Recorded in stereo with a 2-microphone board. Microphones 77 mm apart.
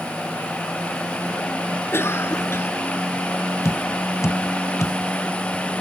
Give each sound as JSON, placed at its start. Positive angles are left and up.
{"t": 1.9, "sound": "a cough", "side_deg": 35}
{"t": 3.6, "sound": "tapping", "side_deg": 45}